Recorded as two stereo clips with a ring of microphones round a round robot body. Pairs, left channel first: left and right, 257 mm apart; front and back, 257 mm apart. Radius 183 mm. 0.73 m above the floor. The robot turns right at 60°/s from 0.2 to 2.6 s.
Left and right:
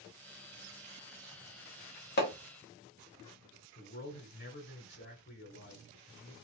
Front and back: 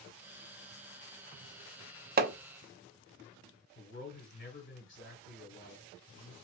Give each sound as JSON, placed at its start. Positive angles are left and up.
{"t": 2.2, "sound": "hammering", "azimuth_deg": 130, "distance_m": 0.6}
{"t": 3.8, "sound": "a man speaking", "azimuth_deg": 45, "distance_m": 2.0}